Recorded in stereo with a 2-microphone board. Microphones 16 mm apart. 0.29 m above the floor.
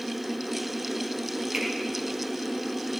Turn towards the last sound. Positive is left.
turn(degrees=-70)  # may be behind; listen again after turning